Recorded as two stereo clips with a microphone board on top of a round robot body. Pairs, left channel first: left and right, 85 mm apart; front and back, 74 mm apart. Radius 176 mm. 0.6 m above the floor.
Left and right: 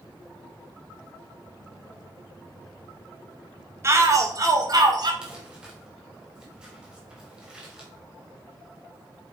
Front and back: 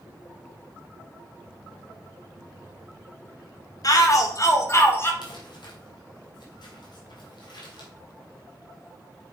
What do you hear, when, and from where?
3.8 s a shout: 35° right, 2 m; by 5.1 s 55° right, 2.5 m
5.2 s crumpling: 10° right, 3 m